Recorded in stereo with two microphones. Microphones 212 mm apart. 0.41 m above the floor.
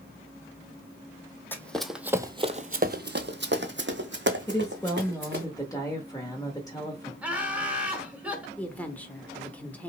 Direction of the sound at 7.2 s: 5° right (ahead or behind).